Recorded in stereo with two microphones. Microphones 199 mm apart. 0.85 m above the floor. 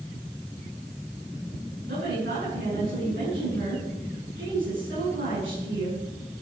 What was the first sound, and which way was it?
A woman speaking, 80° right.